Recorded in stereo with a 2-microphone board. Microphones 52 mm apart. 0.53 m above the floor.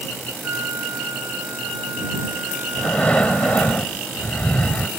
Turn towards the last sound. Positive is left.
turn(degrees=25)  # may be behind; listen again after turning